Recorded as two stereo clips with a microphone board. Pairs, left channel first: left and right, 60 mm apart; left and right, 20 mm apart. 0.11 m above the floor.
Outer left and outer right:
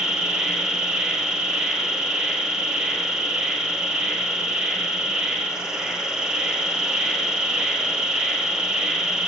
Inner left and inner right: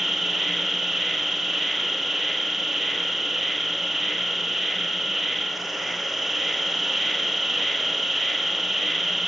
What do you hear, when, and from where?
0.0 s an insect: 10° right (ahead or behind), 1.2 m